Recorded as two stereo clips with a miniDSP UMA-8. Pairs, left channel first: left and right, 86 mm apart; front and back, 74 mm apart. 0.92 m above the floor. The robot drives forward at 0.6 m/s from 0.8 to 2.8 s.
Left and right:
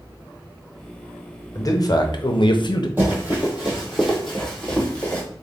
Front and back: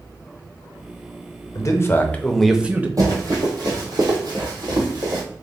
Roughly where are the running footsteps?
Behind right.